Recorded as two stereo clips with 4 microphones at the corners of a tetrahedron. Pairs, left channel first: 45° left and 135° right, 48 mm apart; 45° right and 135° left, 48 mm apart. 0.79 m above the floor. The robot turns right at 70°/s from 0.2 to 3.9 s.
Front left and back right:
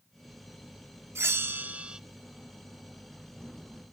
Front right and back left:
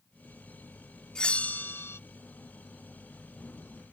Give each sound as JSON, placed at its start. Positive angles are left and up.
{"t": 1.1, "sound": "a bell", "azimuth_deg": -120}